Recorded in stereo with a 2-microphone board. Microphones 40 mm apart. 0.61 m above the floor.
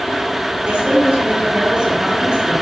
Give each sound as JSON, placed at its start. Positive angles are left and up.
{"t": 0.7, "sound": "a woman speaking", "side_deg": -35, "distance_m": 4.0}